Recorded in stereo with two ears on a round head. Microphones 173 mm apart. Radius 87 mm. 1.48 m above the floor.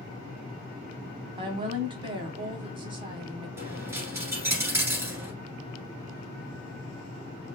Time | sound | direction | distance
1.4 | a woman speaking | 25° right (ahead or behind) | 1.3 m
3.6 | a dropped coin | 15° right (ahead or behind) | 1.6 m